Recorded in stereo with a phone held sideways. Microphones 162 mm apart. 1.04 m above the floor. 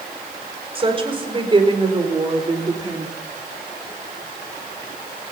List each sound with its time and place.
0.8 s a woman speaking: 35° right (ahead or behind), 4.5 m; by 3.1 s 25° right (ahead or behind), 3 m